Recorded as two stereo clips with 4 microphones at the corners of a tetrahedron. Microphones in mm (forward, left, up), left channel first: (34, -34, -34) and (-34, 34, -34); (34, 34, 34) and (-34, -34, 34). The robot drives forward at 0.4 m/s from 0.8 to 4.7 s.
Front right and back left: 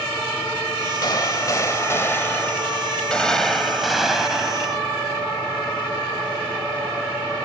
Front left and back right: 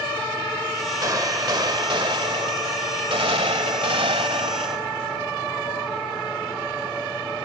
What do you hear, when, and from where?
1.0 s a gunshot: 85° right; by 4.8 s 140° right